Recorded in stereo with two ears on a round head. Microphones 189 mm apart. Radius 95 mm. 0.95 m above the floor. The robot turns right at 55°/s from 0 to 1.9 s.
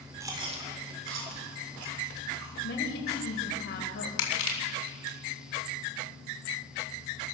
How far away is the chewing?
About 3.5 m.